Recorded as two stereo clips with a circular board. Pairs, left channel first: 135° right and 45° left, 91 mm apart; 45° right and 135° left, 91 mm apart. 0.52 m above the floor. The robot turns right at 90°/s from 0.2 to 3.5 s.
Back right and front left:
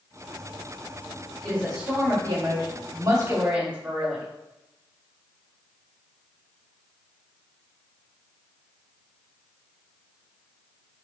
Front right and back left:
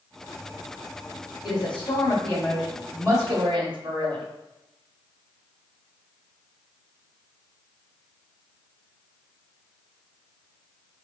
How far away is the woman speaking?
About 1.7 m.